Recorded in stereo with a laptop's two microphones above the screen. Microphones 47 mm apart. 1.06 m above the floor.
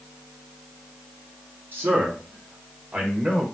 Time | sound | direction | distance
1.7 | a man speaking | 45° right (ahead or behind) | 1.2 m